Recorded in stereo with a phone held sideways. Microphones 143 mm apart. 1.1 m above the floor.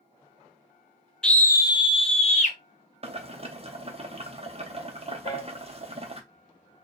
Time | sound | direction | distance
1.2 | a scream | 5° left (ahead or behind) | 0.6 m
3.0 | boiling | 45° right (ahead or behind) | 0.8 m
5.2 | a piano | 30° left (ahead or behind) | 1.4 m